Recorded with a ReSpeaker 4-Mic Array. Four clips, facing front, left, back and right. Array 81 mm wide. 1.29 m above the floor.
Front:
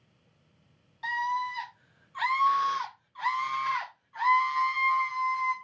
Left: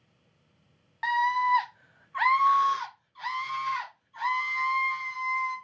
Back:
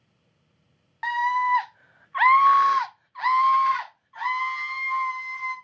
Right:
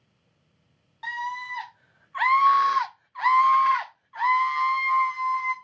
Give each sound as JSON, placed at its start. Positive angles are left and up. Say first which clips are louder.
{"t": 1.0, "sound": "a scream", "louder": "left 8 dB, back 7 dB", "azimuth_deg": 150, "distance_m": 1.1}